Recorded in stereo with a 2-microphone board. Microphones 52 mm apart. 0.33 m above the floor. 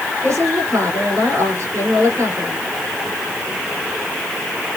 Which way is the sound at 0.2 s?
70° right (ahead or behind).